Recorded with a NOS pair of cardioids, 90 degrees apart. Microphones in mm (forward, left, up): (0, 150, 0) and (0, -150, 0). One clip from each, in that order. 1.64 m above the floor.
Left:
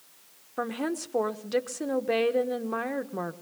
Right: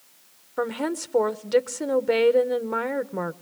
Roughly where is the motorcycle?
No motorcycle in this recording.